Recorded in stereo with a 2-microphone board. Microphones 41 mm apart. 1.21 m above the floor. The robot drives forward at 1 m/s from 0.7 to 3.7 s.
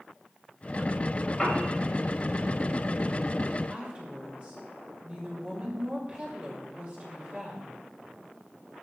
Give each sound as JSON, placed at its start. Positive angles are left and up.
{"t": 1.4, "sound": "a piano", "side_deg": 5, "distance_m": 7.0}
{"t": 3.7, "sound": "a woman speaking", "side_deg": -35, "distance_m": 6.0}